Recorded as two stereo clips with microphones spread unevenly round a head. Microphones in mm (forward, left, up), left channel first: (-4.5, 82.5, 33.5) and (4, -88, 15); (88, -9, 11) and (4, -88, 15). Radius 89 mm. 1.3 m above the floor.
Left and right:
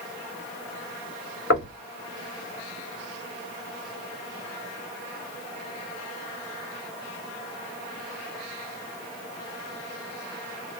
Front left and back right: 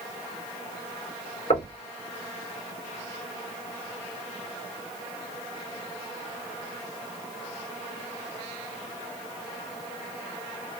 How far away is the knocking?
About 2.5 m.